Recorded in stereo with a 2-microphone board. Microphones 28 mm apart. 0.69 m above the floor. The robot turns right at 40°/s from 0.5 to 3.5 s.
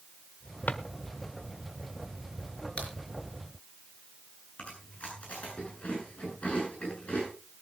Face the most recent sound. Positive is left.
turn(degrees=55)  # may be behind; listen again after turning